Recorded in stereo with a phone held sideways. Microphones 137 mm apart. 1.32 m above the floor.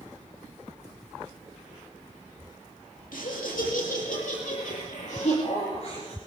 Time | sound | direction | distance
3.1 | laughter | 85° left | 2.5 m